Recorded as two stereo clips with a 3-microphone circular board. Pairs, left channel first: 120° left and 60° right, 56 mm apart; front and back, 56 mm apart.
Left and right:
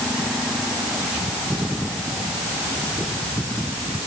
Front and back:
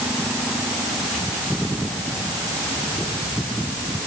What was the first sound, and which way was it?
Only background noise.